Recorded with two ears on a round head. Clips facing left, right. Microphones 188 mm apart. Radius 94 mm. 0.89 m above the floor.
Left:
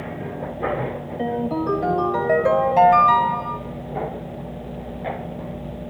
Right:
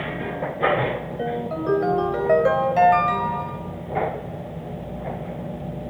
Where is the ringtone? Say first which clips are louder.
Left 5 dB; 5° right (ahead or behind), 3.5 m.